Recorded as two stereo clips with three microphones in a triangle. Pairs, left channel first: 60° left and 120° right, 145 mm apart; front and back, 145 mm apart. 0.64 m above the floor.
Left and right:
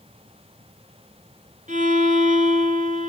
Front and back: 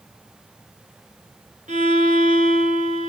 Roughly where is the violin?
Behind right.